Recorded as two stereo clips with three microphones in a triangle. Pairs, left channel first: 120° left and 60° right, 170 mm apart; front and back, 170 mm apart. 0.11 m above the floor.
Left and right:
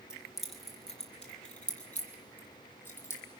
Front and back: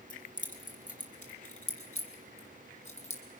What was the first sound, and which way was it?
Keys jangling, 25° left.